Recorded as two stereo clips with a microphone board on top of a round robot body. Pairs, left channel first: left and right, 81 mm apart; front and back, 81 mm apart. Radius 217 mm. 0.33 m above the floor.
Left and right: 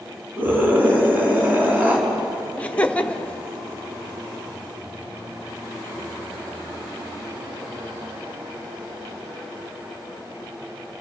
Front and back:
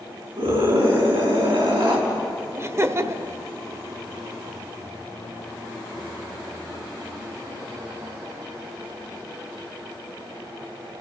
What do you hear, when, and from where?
0.4 s a scream: 160° right, 6 m
2.6 s laughter: 155° left, 1.5 m